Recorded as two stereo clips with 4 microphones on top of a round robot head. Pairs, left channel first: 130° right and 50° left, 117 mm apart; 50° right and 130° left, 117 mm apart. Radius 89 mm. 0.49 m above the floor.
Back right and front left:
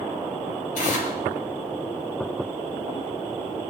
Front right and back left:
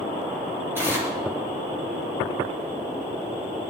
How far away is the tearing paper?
About 5.5 m.